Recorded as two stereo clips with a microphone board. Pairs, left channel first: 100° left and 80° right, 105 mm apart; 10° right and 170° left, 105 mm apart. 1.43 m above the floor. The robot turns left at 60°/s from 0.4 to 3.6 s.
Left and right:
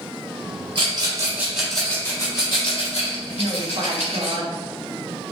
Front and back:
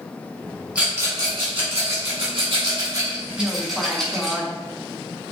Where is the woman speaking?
90° right, 1.0 m; by 4.5 s 105° right, 1.0 m.